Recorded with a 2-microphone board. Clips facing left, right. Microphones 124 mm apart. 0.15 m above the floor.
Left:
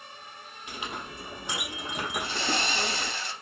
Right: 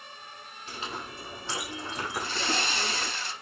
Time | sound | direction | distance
0.7 | a clink | 15° left (ahead or behind) | 3.5 m
2.2 | sawing | 55° left (ahead or behind) | 6 m